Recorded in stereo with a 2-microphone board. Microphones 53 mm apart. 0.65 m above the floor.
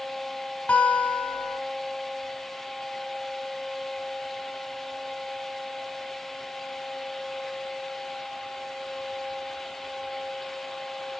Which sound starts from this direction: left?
A guitar, at 0.7 s.